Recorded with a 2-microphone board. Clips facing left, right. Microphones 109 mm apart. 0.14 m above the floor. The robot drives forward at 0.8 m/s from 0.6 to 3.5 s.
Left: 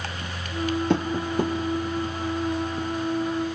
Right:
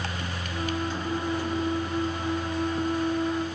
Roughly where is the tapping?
Left.